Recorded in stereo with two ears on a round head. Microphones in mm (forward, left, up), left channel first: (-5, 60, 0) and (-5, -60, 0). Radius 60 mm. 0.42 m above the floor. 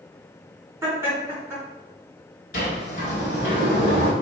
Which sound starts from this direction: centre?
Laughter, at 0.8 s.